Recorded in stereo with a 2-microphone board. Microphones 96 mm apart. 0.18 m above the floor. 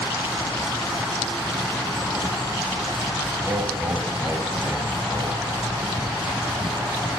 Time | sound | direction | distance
3.4 | laughter | 25° right (ahead or behind) | 1.3 m